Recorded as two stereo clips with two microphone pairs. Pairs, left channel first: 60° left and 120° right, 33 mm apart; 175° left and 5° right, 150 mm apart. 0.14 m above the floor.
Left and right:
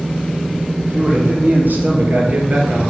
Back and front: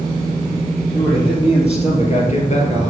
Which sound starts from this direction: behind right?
A man speaking, at 0.8 s.